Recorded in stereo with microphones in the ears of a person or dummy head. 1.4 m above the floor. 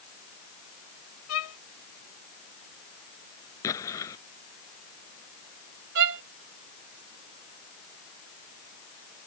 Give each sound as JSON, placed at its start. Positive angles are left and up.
{"t": 1.3, "sound": "a violin", "side_deg": 80}
{"t": 3.6, "sound": "an explosion", "side_deg": 15}
{"t": 6.0, "sound": "a violin", "side_deg": -60}